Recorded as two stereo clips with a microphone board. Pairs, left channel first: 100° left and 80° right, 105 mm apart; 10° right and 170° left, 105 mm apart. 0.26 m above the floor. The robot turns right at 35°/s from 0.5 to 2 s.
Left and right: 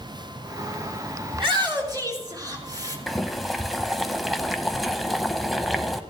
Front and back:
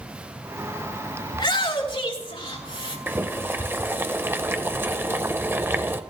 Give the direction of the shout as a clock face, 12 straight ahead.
2 o'clock.